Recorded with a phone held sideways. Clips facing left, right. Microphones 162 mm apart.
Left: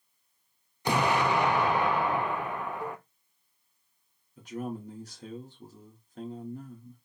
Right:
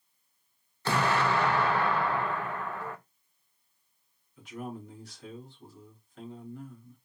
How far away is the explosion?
About 0.6 m.